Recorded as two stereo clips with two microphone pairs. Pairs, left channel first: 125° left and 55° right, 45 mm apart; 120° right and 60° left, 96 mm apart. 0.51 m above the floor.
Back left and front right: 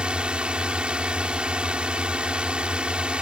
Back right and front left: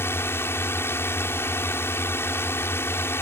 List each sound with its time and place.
0.0 s a drone: 90° right